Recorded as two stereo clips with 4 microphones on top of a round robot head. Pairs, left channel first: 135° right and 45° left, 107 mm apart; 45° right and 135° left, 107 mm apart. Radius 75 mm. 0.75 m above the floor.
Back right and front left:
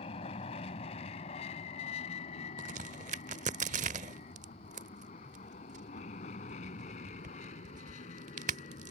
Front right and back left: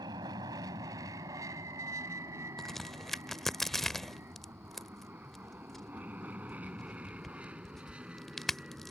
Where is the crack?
45° left.